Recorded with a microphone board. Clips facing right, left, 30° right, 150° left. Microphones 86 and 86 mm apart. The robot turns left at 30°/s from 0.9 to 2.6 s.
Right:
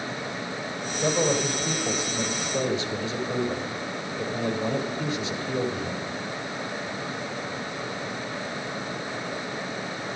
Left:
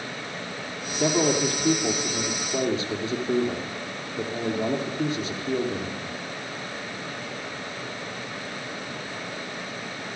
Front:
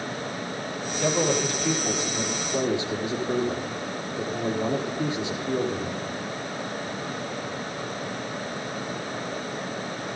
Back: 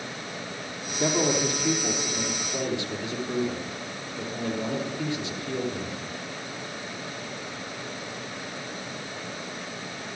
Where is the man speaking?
95° left, 5 m; by 6.2 s 45° left, 5 m.